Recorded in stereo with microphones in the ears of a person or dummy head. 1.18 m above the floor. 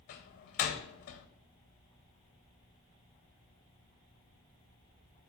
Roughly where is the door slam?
Left.